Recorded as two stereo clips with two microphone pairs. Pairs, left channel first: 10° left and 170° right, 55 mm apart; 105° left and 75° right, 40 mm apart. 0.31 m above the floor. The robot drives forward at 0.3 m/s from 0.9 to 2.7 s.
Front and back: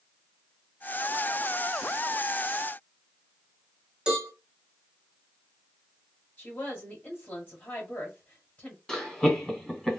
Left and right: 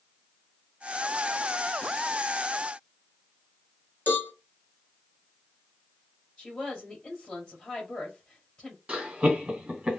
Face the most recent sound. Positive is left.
turn(degrees=-75)